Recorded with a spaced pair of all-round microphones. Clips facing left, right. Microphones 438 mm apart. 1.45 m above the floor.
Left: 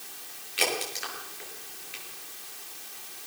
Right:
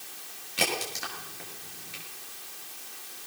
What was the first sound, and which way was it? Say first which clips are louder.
A crack: left 1 dB; 60° right (ahead or behind).